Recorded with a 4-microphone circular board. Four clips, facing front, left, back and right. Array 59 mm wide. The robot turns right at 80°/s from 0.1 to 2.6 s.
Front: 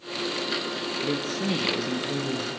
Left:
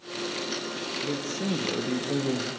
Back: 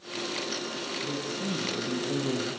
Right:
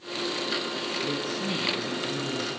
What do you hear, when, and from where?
1.0 s a man speaking: 5° right, 3 m; by 2.5 s 115° left, 3 m